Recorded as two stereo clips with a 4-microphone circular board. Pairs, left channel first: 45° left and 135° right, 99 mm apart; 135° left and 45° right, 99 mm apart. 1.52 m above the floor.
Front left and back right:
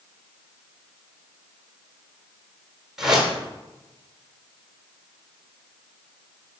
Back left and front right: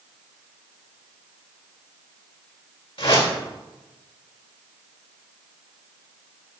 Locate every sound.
3.0 s a whoosh: 140° left, 2.5 m